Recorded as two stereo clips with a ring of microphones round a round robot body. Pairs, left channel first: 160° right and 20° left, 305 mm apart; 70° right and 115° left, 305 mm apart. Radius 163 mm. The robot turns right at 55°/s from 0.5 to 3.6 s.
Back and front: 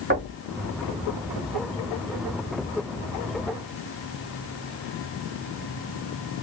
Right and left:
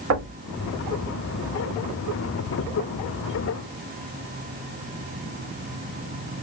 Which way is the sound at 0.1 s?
80° left.